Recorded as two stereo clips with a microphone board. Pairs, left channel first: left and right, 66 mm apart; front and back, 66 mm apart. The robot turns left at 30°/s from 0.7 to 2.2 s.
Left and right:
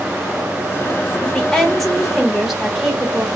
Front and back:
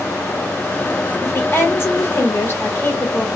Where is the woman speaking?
20° left, 0.9 m; by 3.3 s 10° right, 0.9 m.